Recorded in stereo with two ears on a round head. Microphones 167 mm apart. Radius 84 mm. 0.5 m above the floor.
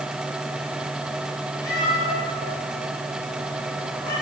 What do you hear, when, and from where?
1.6 s a cat meowing: 20° left (ahead or behind), 10 m; by 4.1 s 25° left (ahead or behind), 13.5 m